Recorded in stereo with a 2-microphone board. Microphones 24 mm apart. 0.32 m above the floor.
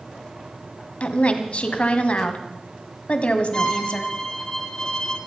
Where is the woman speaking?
55° left (ahead or behind), 2 m.